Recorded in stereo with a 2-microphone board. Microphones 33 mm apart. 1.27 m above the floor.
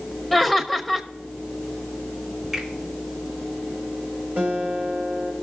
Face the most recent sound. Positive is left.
turn(degrees=-55)  # may be behind; listen again after turning